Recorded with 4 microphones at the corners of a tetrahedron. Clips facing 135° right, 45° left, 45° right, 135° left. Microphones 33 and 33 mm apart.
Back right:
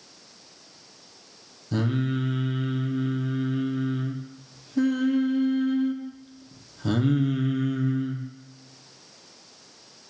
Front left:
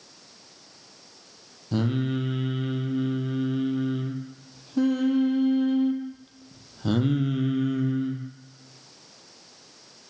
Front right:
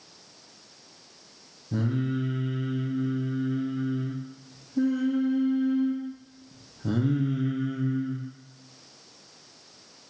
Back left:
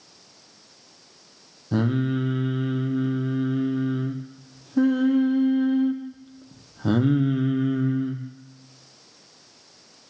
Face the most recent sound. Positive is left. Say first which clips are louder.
# even, back left 5 dB
turn(degrees=125)